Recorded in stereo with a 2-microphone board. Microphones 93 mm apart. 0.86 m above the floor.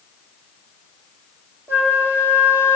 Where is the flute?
25° right (ahead or behind), 2 m.